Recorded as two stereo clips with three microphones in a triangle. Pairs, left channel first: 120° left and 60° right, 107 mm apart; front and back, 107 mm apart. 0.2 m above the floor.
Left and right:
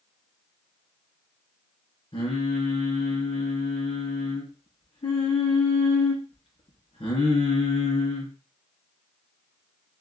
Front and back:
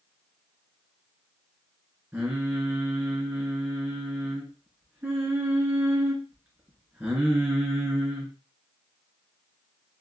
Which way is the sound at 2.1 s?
110° left.